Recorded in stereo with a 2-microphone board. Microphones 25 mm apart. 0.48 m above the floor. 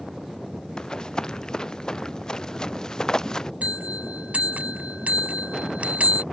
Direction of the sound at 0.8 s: 30° left (ahead or behind).